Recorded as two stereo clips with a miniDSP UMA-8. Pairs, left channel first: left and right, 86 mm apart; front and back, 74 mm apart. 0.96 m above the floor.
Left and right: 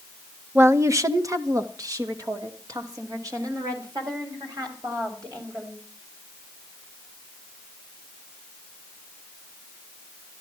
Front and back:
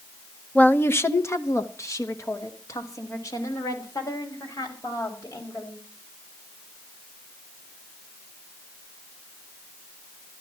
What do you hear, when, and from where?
0.6 s a woman speaking: 55° right, 0.7 m; by 5.8 s 45° right, 6 m